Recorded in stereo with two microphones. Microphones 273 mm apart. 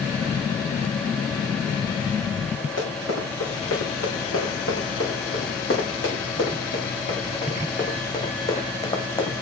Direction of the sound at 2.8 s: 65° left (ahead or behind).